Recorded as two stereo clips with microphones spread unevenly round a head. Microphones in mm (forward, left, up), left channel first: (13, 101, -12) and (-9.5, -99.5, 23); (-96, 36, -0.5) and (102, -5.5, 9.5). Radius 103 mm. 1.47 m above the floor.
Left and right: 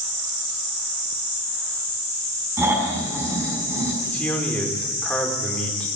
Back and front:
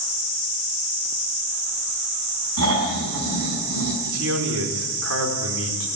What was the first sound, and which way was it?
Snoring, 20° right.